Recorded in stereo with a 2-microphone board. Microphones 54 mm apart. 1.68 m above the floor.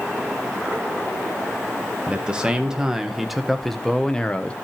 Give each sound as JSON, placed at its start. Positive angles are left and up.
{"t": 2.1, "sound": "a man speaking", "side_deg": -20, "distance_m": 2.0}